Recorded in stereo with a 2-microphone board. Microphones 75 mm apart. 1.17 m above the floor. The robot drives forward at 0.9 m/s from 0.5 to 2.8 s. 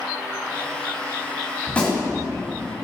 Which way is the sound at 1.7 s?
20° left (ahead or behind).